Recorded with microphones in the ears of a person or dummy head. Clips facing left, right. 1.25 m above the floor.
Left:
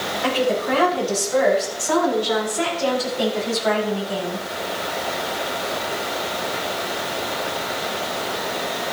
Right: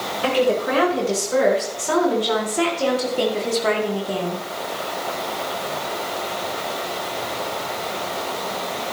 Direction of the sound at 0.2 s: 35° right (ahead or behind).